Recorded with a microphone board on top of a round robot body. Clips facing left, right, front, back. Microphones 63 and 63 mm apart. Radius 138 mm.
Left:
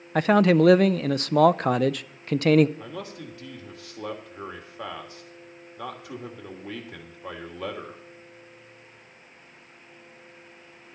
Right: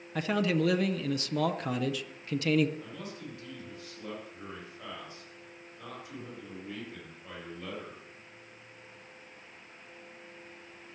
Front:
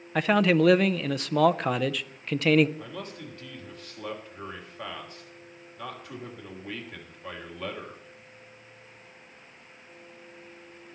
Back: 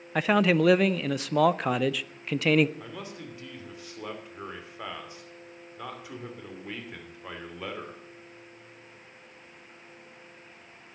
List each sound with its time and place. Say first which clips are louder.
0.1 s a man speaking: left 10 dB, front 1 dB; 90° left, 0.6 m
2.8 s a man speaking: left 5 dB, front 1 dB; 95° left, 2.5 m